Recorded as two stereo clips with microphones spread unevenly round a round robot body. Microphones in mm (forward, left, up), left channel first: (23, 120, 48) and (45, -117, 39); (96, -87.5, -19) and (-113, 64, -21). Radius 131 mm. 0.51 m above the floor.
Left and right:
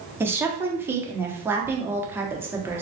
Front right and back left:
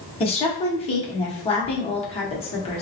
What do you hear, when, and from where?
0.2 s a woman speaking: 25° right, 0.7 m